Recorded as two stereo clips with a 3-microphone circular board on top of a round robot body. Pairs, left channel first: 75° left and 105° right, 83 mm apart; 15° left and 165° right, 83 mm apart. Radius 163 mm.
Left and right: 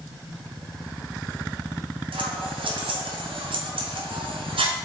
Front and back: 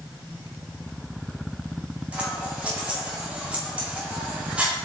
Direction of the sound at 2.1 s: 85° right.